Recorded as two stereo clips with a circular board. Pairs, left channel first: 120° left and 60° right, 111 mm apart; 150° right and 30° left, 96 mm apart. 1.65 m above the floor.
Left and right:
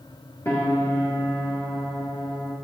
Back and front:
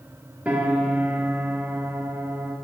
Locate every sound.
0.5 s a piano: 95° left, 1.2 m